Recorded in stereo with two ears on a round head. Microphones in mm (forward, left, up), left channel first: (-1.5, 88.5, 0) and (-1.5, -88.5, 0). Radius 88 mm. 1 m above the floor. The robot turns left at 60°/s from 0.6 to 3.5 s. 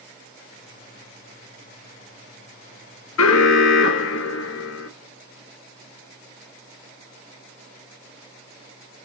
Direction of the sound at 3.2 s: 80° left.